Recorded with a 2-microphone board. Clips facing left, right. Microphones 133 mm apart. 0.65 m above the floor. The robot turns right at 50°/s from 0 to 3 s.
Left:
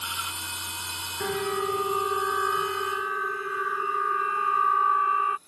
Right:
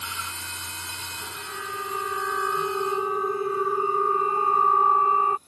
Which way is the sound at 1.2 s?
65° left (ahead or behind).